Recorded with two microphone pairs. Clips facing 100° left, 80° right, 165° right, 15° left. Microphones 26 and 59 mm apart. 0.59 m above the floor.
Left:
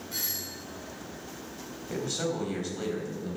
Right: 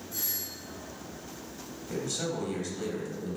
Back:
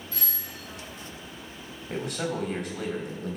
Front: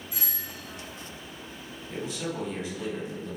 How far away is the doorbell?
About 3 m.